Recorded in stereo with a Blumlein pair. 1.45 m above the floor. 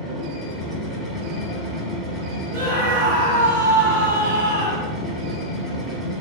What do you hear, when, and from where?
0.0 s a machine running: straight ahead, 1.1 m
2.5 s a scream: 65° right, 0.8 m